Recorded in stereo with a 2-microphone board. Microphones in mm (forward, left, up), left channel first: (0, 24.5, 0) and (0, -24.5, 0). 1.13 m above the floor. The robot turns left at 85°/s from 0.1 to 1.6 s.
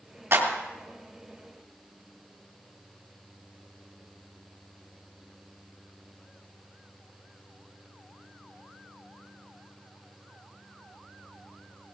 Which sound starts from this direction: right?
A clap, at 0.3 s.